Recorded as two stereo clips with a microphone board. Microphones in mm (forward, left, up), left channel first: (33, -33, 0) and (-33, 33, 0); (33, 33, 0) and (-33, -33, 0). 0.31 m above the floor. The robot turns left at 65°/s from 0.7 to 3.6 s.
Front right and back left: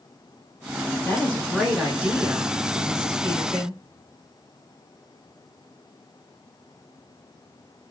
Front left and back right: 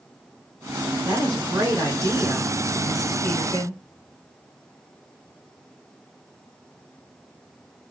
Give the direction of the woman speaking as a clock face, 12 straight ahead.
3 o'clock.